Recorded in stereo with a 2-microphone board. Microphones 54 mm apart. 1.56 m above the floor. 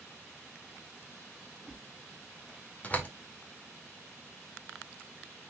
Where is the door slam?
30° left (ahead or behind), 2.0 m.